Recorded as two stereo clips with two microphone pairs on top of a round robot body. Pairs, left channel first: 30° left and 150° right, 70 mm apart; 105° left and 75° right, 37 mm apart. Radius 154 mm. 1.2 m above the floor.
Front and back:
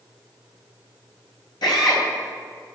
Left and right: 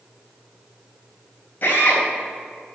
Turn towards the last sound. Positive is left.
turn(degrees=55)